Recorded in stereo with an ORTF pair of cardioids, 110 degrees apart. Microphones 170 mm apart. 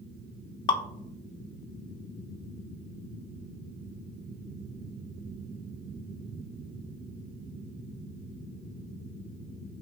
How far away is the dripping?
About 0.6 m.